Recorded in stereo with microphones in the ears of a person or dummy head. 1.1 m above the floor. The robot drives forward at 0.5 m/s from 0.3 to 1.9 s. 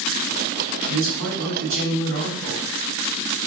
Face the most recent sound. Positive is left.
turn(degrees=-55)  # may be behind; listen again after turning